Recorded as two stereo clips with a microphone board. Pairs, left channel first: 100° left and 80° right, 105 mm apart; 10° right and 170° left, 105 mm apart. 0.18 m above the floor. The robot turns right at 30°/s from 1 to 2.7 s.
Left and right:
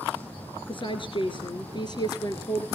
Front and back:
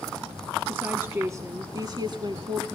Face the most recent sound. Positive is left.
turn(degrees=145)